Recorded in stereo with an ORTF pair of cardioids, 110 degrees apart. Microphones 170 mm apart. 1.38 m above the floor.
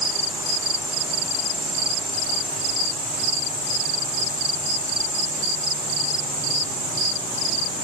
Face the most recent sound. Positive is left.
No sound to turn to.